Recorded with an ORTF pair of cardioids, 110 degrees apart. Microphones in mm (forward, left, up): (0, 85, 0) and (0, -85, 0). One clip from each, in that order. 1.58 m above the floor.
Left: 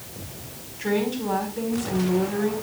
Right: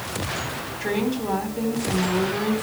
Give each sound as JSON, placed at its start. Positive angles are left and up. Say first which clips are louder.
{"t": 0.8, "sound": "a woman speaking", "louder": "left 1 dB", "azimuth_deg": -10, "distance_m": 4.5}